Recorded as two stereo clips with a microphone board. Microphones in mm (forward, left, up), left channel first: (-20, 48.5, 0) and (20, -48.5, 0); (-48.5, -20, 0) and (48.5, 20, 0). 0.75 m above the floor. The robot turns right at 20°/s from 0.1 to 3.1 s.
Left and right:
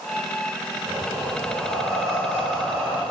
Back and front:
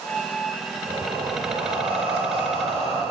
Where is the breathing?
25° right, 3.5 m; by 3.0 s 15° left, 3.5 m.